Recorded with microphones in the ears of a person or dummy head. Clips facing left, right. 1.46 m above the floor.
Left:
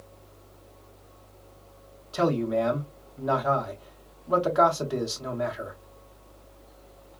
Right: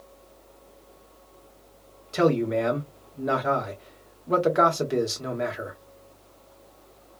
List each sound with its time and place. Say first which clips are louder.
2.1 s a man speaking: right 3 dB; 25° right (ahead or behind), 0.9 m